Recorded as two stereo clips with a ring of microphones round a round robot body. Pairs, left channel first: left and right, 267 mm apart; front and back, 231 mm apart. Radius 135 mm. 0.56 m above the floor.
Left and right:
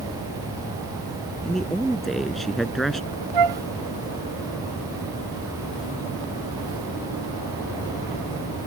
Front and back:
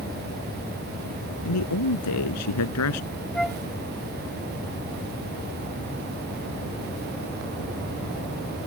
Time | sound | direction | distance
1.4 | a man speaking | straight ahead | ?
3.3 | a flute | 90° right | ?